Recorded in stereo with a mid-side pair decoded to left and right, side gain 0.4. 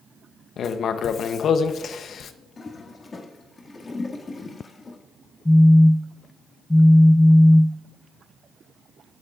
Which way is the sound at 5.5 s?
15° left.